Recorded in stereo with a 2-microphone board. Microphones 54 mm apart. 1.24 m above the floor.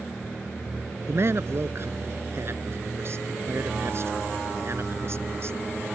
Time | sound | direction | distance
1.1 | a man speaking | 50° right (ahead or behind) | ?